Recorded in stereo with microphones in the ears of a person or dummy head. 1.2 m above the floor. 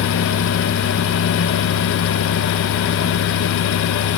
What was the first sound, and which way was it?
Only background noise.